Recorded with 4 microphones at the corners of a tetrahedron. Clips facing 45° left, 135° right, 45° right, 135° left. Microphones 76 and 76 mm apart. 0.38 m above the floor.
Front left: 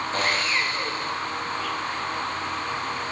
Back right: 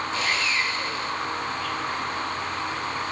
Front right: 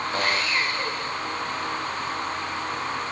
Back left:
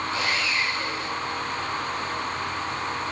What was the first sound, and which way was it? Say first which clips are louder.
Sawing: front left 2 dB, front right 3 dB; straight ahead.